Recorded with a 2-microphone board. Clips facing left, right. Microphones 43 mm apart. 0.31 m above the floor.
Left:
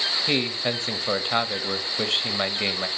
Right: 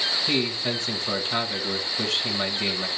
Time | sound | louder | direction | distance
0.3 | a man speaking | left 2 dB | 35° left (ahead or behind) | 1.1 m